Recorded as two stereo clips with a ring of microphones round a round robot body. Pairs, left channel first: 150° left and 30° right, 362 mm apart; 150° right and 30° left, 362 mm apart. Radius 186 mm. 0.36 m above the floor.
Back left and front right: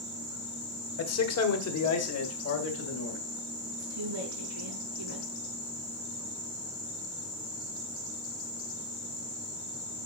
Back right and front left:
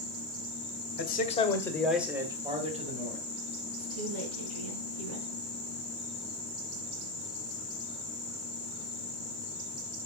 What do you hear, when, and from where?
1.0 s a man speaking: 165° left, 1.6 m; by 3.2 s 95° left, 3 m
3.7 s a woman speaking: 15° left, 4.5 m